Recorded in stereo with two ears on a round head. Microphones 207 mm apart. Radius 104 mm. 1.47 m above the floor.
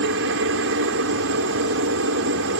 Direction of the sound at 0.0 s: 50° right (ahead or behind).